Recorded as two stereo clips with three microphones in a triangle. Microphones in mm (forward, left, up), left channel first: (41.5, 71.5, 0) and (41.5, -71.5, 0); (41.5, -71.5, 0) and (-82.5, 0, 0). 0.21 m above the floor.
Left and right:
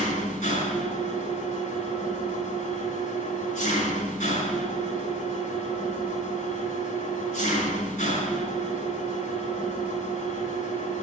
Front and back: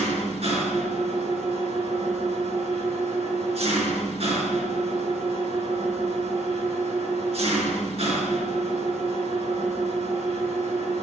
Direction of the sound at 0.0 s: 110° left.